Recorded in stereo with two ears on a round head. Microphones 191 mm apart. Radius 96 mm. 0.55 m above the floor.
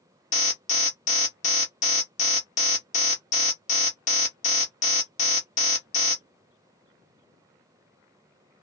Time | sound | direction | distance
0.3 | an alarm | 35° left (ahead or behind) | 0.9 m